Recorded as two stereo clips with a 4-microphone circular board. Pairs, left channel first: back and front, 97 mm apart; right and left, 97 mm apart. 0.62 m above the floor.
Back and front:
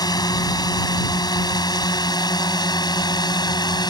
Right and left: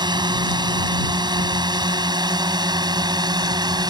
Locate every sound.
0.0 s a drone: 135° left